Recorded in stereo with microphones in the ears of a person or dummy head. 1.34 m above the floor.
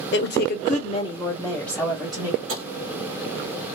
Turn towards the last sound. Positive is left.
turn(degrees=-80)